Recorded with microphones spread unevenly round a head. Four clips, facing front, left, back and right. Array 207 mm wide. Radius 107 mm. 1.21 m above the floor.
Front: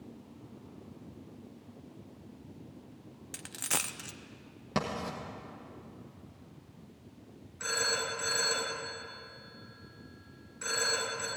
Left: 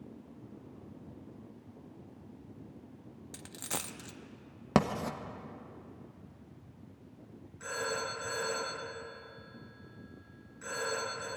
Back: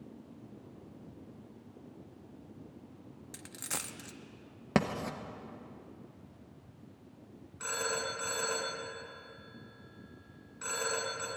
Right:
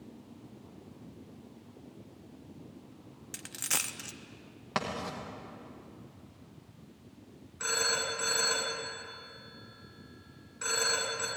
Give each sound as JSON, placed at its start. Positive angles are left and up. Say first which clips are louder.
{"t": 3.3, "sound": "a dropped coin", "louder": "right 1 dB, front 6 dB", "azimuth_deg": 25, "distance_m": 0.7}
{"t": 4.8, "sound": "writing", "louder": "left 6 dB, back 3 dB", "azimuth_deg": 135, "distance_m": 1.0}
{"t": 7.6, "sound": "a phone ringing", "louder": "right 2 dB, front 1 dB", "azimuth_deg": -100, "distance_m": 6.5}